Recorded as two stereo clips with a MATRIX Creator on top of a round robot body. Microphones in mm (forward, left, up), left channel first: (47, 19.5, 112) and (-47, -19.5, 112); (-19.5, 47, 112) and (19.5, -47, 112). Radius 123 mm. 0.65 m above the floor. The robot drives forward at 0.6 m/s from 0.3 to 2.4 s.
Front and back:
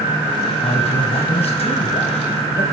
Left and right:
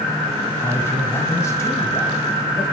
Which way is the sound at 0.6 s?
40° left.